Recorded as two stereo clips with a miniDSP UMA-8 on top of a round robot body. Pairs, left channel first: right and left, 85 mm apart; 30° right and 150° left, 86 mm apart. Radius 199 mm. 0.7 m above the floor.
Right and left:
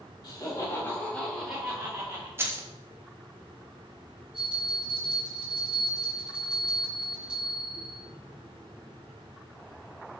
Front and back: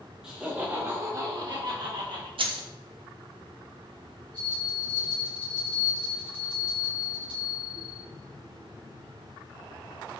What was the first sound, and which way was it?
Laughter, 130° right.